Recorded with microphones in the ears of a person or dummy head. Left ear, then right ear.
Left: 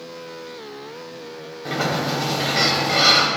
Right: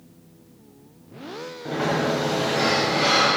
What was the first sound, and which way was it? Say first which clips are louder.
A sliding door: left 1 dB; 60° left (ahead or behind).